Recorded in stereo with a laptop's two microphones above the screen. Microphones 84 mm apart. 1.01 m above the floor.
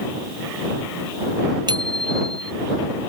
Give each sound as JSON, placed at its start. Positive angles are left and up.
{"t": 1.7, "sound": "a bicycle bell", "side_deg": -60}